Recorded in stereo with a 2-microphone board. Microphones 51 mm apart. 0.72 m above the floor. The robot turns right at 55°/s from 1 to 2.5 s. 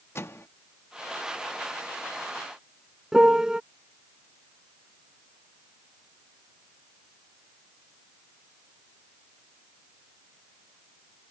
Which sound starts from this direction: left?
A microwave, at 0.1 s.